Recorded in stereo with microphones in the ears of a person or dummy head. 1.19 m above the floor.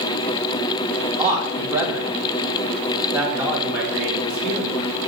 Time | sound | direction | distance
1.2 | a man speaking | 20° right (ahead or behind) | 1.1 m